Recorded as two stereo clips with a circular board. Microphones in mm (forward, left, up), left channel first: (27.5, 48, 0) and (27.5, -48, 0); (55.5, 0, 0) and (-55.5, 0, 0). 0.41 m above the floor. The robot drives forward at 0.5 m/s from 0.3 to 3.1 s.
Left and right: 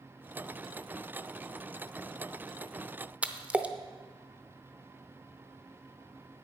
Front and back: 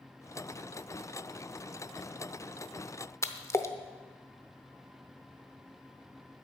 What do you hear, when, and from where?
3.2 s a splash: 30° right, 0.7 m